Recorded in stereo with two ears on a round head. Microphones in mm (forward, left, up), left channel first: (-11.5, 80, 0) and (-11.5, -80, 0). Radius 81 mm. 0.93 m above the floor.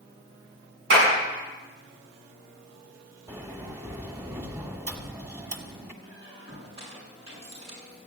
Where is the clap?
70° right (ahead or behind), 8 m.